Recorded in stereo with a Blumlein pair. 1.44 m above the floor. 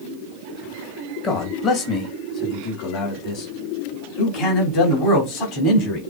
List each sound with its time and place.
1.2 s a man speaking: 30° left, 2 m; by 6.0 s 40° left, 5 m